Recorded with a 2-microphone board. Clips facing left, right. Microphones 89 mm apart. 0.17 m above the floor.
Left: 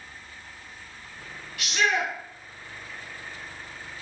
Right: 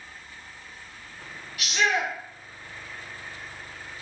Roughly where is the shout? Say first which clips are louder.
Even; centre.